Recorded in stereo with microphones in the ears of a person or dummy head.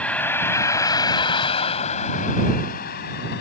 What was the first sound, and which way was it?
A vehicle, 5° left (ahead or behind).